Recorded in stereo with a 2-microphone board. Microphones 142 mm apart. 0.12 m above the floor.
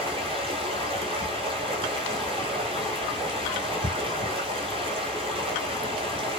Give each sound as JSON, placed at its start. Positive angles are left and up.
{"t": 0.0, "sound": "running water", "side_deg": -40, "distance_m": 1.0}